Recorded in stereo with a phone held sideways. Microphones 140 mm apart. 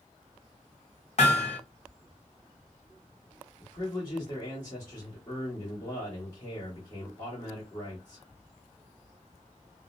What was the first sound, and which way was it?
Hammering, 50° left (ahead or behind).